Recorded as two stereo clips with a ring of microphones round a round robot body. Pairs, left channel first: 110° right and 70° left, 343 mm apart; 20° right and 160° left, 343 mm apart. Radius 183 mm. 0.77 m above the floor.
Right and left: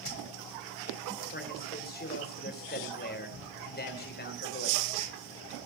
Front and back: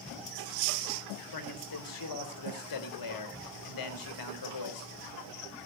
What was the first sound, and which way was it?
A man speaking, 50° right.